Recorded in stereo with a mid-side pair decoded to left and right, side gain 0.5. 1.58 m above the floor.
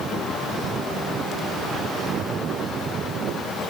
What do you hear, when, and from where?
Only background noise.